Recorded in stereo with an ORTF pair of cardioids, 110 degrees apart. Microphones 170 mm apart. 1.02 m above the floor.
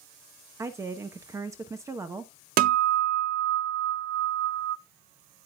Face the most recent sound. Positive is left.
turn(degrees=-65)